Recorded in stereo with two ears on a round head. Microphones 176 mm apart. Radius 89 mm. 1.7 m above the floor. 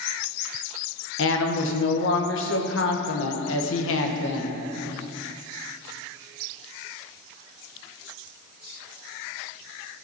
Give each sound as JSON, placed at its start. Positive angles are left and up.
{"t": 1.2, "sound": "a woman speaking", "side_deg": 65, "distance_m": 1.3}